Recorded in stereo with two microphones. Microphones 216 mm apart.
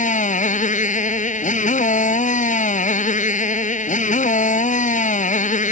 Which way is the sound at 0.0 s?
35° left (ahead or behind).